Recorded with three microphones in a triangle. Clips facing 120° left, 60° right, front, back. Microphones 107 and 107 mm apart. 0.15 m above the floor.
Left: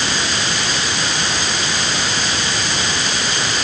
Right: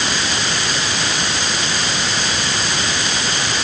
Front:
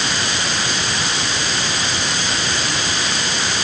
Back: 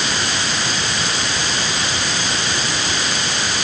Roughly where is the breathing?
I don't hear breathing.